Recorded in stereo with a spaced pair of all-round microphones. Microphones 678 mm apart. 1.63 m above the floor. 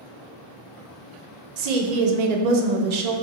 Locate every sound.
1.6 s a woman speaking: 75° right (ahead or behind), 0.5 m